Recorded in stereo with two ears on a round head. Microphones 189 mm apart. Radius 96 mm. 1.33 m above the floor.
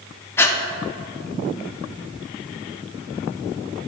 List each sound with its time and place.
0.4 s breathing: 10° left (ahead or behind), 0.6 m